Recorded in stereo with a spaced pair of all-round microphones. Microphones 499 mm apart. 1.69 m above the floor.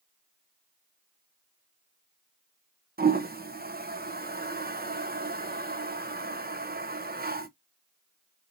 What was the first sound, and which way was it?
A toilet flushing, 20° right (ahead or behind).